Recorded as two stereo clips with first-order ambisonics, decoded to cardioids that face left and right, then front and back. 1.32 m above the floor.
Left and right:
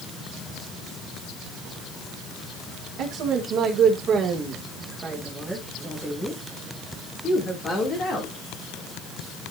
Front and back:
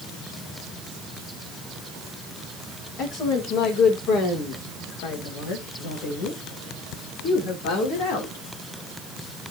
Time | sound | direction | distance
3.0 | a woman speaking | 50° right | 2 m